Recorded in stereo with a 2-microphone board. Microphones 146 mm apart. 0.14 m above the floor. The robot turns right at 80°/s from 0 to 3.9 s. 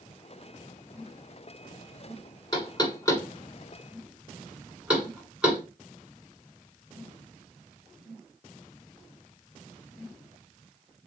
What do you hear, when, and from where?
2.5 s knocking: 30° left (ahead or behind), 1.5 m; by 5.6 s 5° right (ahead or behind), 1.5 m